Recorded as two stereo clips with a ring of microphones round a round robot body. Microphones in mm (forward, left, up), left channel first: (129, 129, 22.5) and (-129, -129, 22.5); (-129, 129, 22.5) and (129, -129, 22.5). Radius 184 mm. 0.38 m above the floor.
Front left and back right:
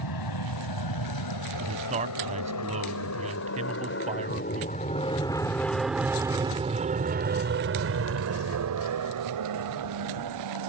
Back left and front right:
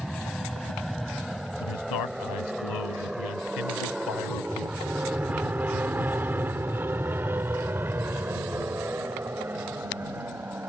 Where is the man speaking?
155° left.